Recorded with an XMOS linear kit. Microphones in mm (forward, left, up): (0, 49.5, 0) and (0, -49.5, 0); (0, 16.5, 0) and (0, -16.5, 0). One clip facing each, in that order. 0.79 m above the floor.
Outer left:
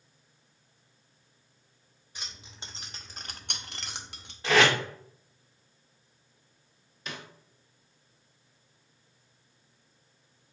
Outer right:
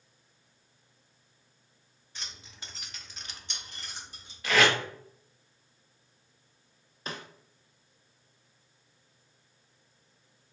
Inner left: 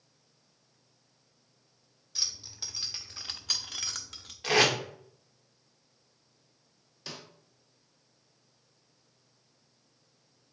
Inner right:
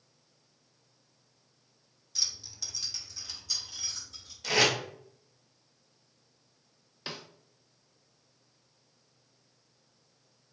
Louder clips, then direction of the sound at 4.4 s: Outer left 2 dB, inner left 1 dB; 30° left (ahead or behind).